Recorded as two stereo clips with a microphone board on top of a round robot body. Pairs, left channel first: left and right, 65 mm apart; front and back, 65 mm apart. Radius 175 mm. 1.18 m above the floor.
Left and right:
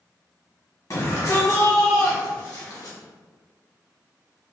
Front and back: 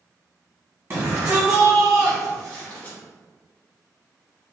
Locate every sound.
0.9 s a shout: 115° left, 1.6 m; by 3.0 s 65° left, 1.7 m